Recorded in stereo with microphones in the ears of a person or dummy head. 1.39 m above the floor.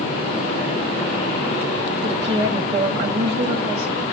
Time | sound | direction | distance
2.0 | a woman speaking | 35° right (ahead or behind) | 0.6 m